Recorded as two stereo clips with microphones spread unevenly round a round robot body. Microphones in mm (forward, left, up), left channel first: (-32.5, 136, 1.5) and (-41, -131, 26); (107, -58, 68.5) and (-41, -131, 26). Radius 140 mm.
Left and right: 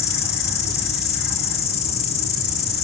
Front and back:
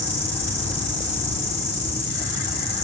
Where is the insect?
95° left, 7.5 m.